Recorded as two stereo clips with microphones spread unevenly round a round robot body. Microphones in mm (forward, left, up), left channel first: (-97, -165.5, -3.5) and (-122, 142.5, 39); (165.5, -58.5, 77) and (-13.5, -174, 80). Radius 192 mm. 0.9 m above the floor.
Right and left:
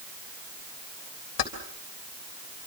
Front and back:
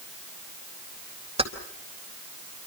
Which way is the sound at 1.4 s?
85° right.